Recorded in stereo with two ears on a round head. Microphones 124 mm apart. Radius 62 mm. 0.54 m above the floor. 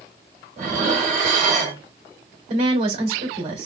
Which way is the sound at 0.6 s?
50° right (ahead or behind).